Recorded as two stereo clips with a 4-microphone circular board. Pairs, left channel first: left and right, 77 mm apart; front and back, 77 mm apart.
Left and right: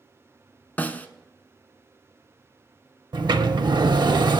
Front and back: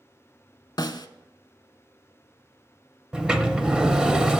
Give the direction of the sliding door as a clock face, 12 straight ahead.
3 o'clock.